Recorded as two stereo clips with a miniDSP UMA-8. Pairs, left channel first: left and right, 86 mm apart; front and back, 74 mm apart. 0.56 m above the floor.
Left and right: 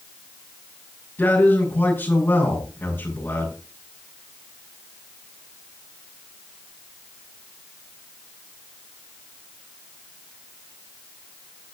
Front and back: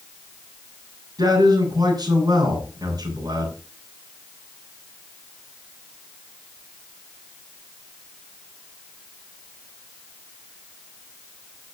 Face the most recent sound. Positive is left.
turn(degrees=150)